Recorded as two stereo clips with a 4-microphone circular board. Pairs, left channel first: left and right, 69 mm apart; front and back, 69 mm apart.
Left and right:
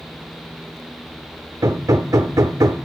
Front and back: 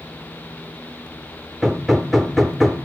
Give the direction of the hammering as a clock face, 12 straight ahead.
3 o'clock.